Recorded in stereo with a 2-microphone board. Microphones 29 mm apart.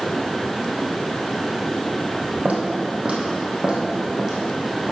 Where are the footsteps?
55° right (ahead or behind), 2.5 m; by 4.9 s centre (ahead or behind), 4 m.